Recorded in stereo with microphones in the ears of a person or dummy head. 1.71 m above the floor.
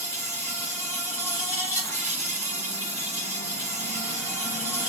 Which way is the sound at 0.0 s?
15° left (ahead or behind).